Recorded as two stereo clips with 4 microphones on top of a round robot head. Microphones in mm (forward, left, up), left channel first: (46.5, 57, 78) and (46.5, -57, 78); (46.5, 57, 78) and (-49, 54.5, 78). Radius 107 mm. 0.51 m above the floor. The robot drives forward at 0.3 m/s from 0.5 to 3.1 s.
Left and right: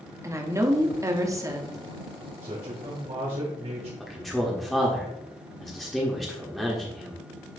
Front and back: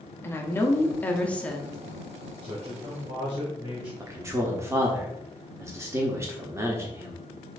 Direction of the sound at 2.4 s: 125° right.